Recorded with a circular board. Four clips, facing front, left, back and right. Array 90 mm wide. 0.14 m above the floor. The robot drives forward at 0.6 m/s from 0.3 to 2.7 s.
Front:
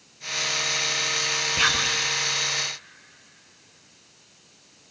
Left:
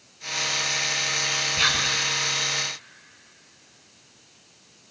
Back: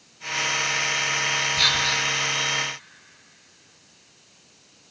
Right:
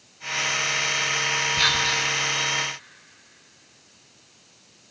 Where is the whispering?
10° left, 1.2 m; by 2.0 s 15° left, 1.1 m.